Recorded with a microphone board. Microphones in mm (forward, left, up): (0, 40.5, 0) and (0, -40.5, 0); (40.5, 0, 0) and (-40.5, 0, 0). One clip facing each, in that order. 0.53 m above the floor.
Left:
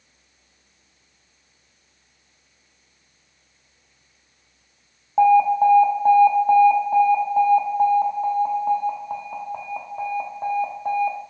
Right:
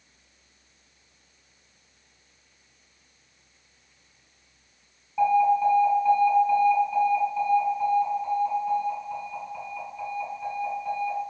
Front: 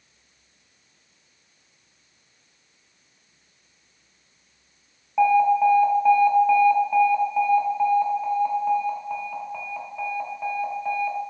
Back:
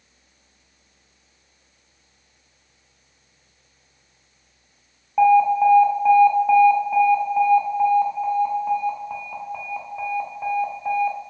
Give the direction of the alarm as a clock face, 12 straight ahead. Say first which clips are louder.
Left 5 dB, back 3 dB; 9 o'clock.